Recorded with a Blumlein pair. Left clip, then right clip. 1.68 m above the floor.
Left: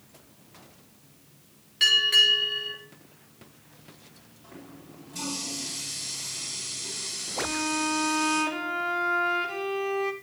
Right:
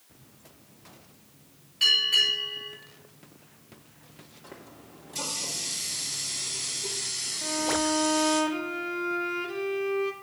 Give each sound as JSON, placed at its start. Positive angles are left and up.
{"t": 1.8, "sound": "a bell", "azimuth_deg": 25, "distance_m": 5.5}
{"t": 4.4, "sound": "a running tap", "azimuth_deg": -20, "distance_m": 2.5}
{"t": 7.4, "sound": "a violin", "azimuth_deg": 10, "distance_m": 0.8}